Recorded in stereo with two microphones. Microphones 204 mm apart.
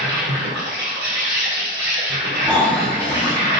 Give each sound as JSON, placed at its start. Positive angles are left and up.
{"t": 0.0, "sound": "an insect", "side_deg": -60, "distance_m": 1.7}
{"t": 2.4, "sound": "snoring", "side_deg": 5, "distance_m": 0.9}